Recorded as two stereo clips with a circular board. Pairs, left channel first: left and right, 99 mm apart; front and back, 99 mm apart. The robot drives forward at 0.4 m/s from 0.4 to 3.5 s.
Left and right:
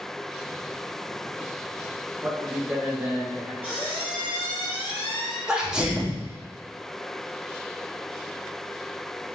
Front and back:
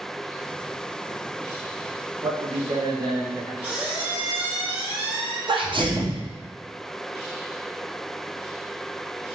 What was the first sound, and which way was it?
A man speaking, 155° right.